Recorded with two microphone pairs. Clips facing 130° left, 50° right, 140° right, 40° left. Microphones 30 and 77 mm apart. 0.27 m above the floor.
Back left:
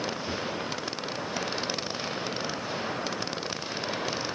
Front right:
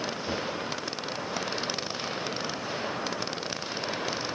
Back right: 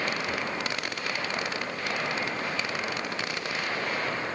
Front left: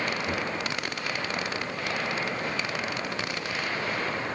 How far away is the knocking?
About 4.5 m.